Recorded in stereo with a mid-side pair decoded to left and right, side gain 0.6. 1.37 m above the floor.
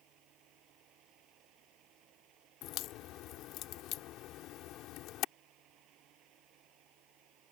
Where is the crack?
65° left.